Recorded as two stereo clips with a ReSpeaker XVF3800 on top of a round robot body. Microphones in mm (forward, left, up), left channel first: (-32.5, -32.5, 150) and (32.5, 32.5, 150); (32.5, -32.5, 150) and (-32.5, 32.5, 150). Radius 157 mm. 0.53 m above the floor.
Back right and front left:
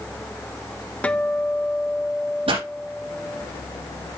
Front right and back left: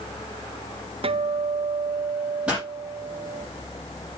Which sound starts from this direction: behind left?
A guitar, at 1.0 s.